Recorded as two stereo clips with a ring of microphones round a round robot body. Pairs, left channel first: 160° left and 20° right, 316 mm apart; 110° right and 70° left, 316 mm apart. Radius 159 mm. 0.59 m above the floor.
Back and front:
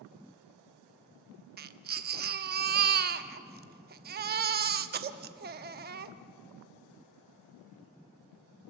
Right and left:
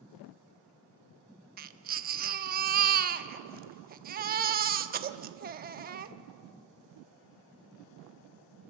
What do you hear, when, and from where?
1.6 s a baby crying: 20° left, 0.8 m